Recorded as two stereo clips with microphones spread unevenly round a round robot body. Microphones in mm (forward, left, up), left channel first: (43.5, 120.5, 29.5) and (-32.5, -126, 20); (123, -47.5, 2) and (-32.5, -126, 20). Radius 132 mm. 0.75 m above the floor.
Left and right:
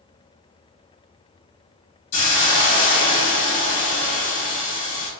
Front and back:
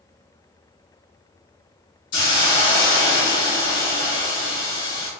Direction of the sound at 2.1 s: 30° left.